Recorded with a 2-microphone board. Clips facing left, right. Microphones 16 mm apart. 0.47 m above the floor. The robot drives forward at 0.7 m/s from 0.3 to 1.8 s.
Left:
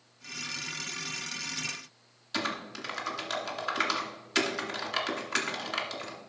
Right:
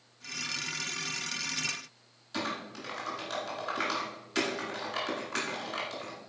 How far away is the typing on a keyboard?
About 1.8 m.